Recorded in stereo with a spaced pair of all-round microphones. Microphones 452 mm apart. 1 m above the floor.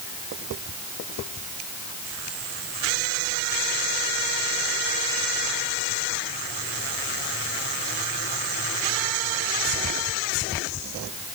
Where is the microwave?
No microwave in this recording.